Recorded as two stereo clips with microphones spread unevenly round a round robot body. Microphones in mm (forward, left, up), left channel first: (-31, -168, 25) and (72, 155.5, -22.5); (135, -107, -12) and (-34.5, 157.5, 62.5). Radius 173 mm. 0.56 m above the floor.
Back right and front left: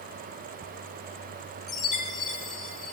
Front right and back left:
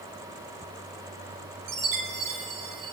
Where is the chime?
160° left, 2 m.